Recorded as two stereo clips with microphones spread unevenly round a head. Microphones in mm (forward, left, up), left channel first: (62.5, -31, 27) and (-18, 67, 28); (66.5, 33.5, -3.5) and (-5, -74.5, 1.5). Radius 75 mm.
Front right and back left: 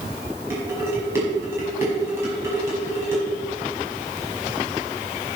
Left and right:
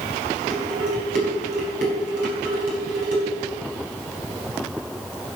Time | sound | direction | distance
0.5 | dishes clattering | 160° right | 5 m